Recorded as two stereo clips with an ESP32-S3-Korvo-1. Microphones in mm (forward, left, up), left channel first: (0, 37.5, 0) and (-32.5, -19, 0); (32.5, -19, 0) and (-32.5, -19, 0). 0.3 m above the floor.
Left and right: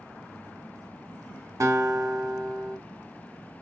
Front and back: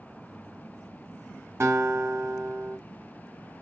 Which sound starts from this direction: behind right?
A guitar, at 1.6 s.